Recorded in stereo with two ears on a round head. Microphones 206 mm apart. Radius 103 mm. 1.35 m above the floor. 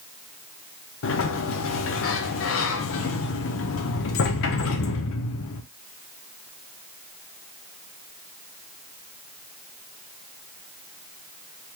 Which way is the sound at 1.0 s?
60° left (ahead or behind).